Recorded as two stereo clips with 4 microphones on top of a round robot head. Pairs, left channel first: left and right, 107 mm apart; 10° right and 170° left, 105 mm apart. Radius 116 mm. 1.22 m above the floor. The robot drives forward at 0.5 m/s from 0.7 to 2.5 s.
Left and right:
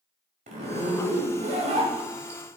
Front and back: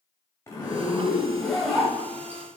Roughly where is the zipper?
Right.